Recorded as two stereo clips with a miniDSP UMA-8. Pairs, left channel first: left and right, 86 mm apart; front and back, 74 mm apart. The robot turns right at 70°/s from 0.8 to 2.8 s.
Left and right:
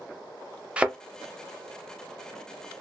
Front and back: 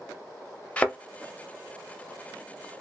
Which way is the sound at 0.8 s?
35° right.